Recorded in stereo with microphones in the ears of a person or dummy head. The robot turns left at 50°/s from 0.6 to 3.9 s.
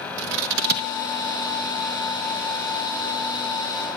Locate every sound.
0.2 s scissors: 70° right (ahead or behind), 1.2 m; by 0.9 s 55° right (ahead or behind), 1.2 m